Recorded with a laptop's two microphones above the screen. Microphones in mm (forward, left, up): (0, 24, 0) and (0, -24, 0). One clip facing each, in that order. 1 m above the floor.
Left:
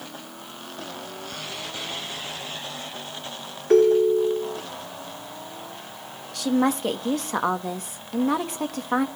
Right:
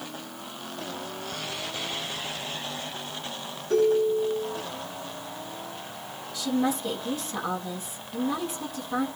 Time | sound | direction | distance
3.7 | a ringtone | 55° left (ahead or behind) | 1.4 m
6.3 | a woman speaking | 65° left (ahead or behind) | 1.4 m